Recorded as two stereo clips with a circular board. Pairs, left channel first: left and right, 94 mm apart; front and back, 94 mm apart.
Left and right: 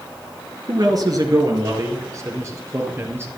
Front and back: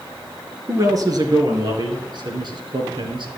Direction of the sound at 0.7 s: 130° right.